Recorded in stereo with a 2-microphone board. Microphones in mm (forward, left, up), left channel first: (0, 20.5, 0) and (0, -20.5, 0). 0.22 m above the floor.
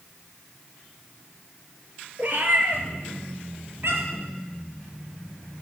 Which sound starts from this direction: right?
A cat meowing, at 2.2 s.